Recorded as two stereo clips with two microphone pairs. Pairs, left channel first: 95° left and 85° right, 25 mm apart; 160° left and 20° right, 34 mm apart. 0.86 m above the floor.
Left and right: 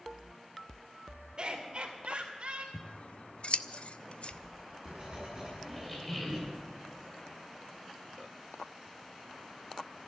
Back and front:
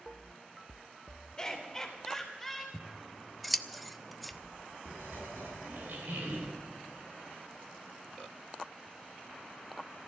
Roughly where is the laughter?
Behind right.